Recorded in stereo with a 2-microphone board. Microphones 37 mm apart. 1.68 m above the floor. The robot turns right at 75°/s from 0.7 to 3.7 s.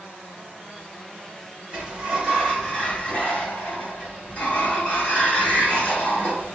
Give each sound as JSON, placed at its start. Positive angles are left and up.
{"t": 1.7, "sound": "a sliding door", "azimuth_deg": -40, "distance_m": 1.9}